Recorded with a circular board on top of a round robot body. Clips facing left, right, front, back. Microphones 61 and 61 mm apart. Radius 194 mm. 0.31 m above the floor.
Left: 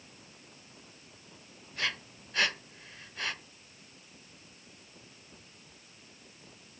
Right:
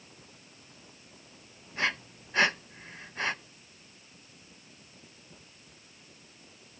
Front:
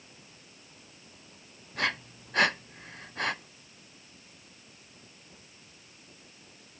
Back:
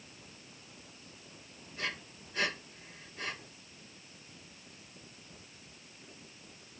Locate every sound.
1.8 s breathing: 30° right, 0.6 m